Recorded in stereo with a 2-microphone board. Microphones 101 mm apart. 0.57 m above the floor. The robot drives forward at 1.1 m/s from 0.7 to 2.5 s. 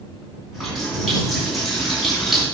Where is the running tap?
Centre (ahead or behind), 4 m.